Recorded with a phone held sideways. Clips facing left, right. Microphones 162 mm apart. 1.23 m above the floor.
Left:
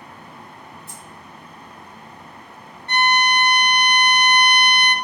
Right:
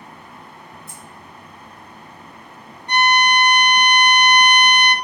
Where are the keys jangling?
75° left (ahead or behind), 1.3 m.